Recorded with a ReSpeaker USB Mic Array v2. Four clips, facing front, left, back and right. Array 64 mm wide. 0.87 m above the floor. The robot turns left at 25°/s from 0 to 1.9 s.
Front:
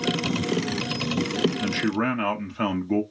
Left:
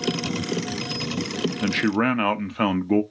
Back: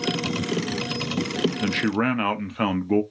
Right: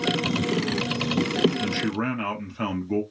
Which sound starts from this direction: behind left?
A man speaking, at 1.6 s.